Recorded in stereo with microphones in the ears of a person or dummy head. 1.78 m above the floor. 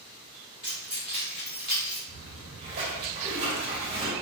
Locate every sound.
0.6 s keys jangling: 25° left (ahead or behind), 0.9 m; by 2.0 s 30° left (ahead or behind), 1.4 m
2.1 s a splash: 30° right (ahead or behind), 1.7 m